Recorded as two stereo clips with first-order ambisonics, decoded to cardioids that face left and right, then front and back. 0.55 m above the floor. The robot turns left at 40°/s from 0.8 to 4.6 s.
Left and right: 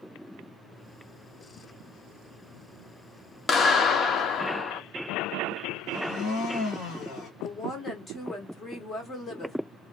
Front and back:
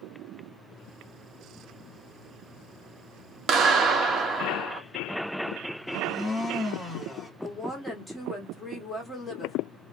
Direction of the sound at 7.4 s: 75° left.